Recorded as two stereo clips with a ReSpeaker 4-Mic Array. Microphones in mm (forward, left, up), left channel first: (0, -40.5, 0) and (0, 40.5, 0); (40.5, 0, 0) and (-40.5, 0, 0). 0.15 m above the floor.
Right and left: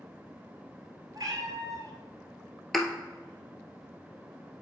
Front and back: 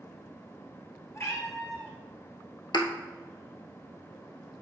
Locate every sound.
1.1 s a cat meowing: 55° left, 1.2 m
2.7 s a thud: straight ahead, 0.8 m